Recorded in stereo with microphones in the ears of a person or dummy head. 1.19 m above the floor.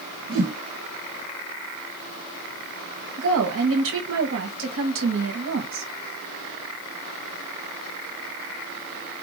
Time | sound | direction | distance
0.3 | a whoosh | 70° right (ahead or behind) | 1.5 m
3.2 | a woman speaking | 70° right (ahead or behind) | 1.1 m